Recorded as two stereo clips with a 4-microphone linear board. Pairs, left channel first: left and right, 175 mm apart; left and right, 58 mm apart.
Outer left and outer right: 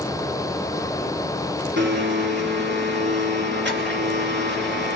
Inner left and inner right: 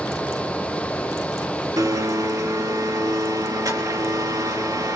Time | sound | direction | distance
1.8 | a blender | 80° right | 3 m